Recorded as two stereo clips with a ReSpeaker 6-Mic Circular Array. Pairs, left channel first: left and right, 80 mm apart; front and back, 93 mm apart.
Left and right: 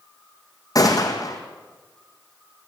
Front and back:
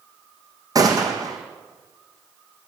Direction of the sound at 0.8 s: 130° left.